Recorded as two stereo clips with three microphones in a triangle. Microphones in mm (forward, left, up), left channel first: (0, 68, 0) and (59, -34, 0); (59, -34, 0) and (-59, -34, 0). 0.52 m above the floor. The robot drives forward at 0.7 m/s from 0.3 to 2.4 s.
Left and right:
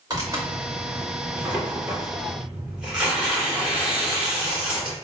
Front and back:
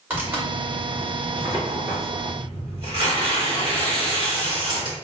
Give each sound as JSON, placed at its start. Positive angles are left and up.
{"t": 0.1, "sound": "tearing paper", "azimuth_deg": -105, "distance_m": 2.0}